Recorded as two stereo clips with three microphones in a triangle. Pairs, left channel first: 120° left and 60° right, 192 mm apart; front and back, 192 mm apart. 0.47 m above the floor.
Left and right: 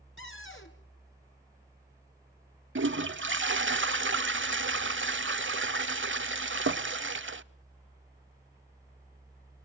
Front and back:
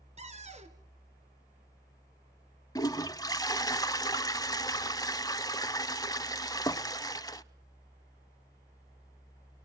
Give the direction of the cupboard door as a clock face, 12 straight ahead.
8 o'clock.